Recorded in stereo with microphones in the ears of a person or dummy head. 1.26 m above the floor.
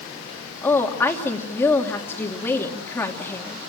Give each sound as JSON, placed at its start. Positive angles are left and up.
{"t": 0.6, "sound": "a woman speaking", "side_deg": 20, "distance_m": 2.5}